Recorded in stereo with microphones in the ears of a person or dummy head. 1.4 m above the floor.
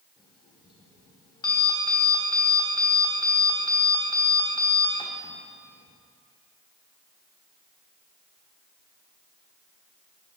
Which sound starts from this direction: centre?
An alarm clock, at 0.2 s.